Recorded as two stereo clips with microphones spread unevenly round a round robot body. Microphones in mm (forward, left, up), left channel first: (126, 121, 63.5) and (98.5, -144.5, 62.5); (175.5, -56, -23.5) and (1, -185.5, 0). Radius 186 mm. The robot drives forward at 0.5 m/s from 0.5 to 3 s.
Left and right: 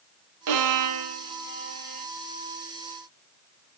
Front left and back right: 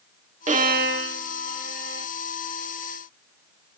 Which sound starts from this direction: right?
A violin, at 0.5 s.